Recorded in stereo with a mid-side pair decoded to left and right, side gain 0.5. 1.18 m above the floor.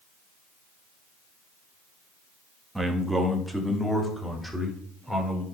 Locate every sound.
2.8 s a man speaking: 5° right, 1.9 m; by 5.4 s 5° left, 4.5 m